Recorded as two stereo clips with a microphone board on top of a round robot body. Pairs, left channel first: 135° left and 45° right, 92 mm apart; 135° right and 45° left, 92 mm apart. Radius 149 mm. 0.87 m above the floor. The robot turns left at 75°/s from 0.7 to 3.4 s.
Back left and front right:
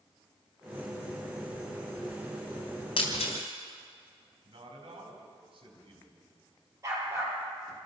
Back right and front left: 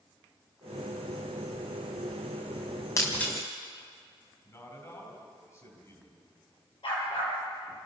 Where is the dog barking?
105° right, 5.5 m.